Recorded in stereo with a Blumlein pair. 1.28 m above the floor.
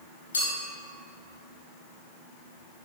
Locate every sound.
0.3 s a clink: 70° left, 2 m